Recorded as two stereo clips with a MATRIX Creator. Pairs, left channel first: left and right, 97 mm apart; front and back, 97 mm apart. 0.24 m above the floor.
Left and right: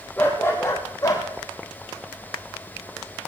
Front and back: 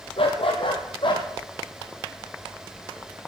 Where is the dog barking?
20° left, 2.5 m; by 1.3 s 35° left, 3.5 m.